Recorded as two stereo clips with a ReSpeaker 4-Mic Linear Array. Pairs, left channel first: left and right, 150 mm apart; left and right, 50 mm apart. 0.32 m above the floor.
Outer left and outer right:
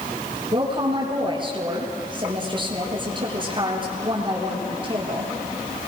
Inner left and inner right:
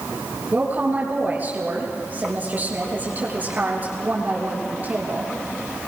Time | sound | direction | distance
0.5 | a woman speaking | 35° right (ahead or behind) | 6 m